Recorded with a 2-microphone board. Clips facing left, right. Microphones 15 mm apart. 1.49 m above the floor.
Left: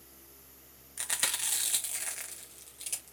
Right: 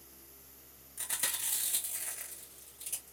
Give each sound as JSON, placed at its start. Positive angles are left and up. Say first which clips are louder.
{"t": 1.0, "sound": "chewing", "louder": "left 5 dB", "side_deg": 45, "distance_m": 1.2}